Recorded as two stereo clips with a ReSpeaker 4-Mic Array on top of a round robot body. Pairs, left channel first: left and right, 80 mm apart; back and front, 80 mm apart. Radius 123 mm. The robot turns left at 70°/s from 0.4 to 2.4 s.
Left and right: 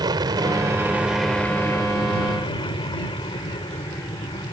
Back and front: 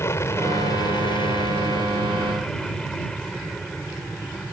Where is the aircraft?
120° right; by 4.5 s 100° left.